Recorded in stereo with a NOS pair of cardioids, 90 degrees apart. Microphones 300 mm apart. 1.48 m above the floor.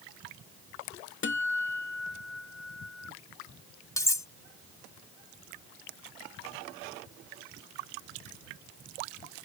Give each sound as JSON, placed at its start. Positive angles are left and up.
{"t": 1.2, "sound": "a guitar", "azimuth_deg": 40}
{"t": 4.0, "sound": "cutlery clinking", "azimuth_deg": 10}